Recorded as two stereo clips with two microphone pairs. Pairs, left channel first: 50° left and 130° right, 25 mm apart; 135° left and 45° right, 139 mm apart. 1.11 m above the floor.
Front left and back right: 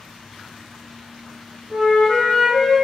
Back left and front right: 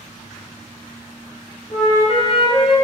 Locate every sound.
1.7 s a flute: 165° left, 0.9 m